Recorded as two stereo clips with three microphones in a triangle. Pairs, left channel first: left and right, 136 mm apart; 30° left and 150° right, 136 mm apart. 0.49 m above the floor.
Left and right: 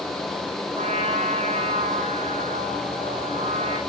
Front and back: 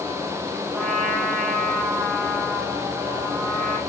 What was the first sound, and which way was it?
A trumpet, 60° right.